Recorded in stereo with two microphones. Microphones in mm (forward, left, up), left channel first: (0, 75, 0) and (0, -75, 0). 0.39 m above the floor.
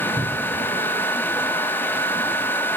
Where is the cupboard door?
10° right (ahead or behind), 2 m.